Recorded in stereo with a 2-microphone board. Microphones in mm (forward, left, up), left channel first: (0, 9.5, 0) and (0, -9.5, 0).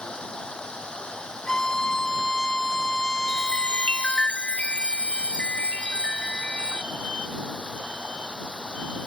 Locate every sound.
0.0 s running water: 65° left (ahead or behind)
1.5 s a violin: 35° left (ahead or behind)
3.3 s a chime: 85° left